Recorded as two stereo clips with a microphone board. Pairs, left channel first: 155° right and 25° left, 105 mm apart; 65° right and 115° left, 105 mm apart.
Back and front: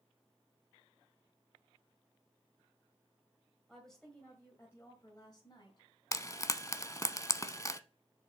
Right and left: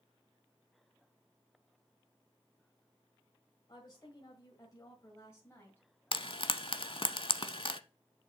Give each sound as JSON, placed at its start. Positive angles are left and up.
{"t": 3.7, "sound": "a woman speaking", "azimuth_deg": -70, "distance_m": 1.9}
{"t": 6.1, "sound": "frying", "azimuth_deg": -100, "distance_m": 0.6}